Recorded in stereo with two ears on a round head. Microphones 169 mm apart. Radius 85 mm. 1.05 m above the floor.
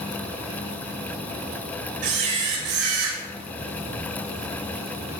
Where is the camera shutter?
85° right, 3 m.